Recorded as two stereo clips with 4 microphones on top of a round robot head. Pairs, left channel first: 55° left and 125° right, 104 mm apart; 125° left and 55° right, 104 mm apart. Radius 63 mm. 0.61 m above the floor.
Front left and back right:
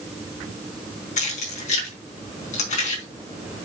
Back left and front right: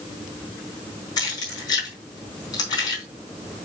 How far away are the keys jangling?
About 4.5 m.